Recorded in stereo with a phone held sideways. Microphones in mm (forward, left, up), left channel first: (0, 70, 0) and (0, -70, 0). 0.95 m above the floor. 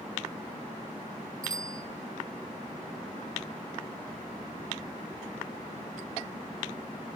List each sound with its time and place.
1.4 s a bicycle bell: 85° right, 3.5 m